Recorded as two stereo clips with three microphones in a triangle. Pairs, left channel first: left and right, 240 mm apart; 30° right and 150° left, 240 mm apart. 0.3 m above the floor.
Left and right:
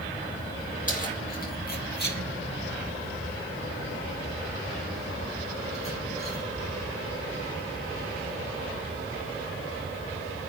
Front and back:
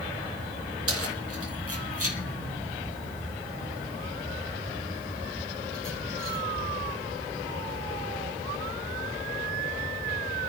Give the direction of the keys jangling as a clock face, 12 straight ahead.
7 o'clock.